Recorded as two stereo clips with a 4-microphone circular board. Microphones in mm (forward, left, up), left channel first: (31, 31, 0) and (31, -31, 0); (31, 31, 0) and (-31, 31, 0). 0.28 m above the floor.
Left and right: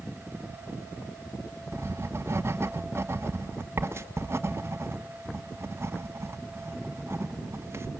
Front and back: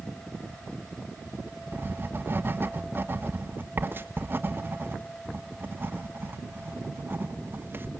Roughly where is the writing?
Behind right.